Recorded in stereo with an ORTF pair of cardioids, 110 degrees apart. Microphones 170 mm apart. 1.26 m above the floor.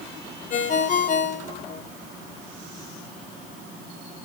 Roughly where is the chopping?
No chopping in this recording.